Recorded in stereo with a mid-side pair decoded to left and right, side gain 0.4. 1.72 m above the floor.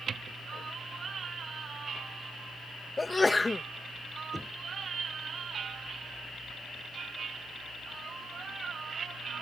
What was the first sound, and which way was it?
A sneeze, 20° left.